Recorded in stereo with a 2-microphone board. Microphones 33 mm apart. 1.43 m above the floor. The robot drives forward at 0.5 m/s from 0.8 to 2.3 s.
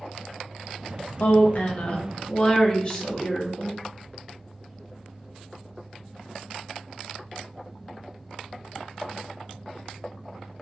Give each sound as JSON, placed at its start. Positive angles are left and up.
{"t": 1.2, "sound": "a woman speaking", "side_deg": 55, "distance_m": 0.5}